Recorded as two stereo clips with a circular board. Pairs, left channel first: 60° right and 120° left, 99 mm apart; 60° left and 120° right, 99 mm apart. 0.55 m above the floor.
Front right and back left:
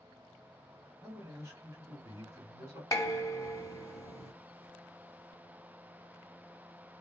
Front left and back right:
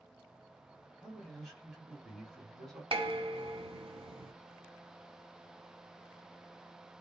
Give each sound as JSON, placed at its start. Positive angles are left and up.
{"t": 1.0, "sound": "a man speaking", "azimuth_deg": 145, "distance_m": 1.3}
{"t": 2.9, "sound": "dishes clattering", "azimuth_deg": -115, "distance_m": 0.7}